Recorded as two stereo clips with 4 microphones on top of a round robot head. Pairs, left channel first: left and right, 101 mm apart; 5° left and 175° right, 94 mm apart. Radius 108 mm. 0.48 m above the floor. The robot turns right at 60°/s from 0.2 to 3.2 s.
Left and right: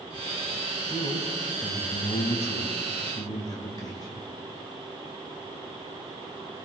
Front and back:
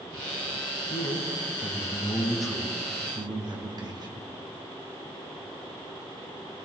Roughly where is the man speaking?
Ahead.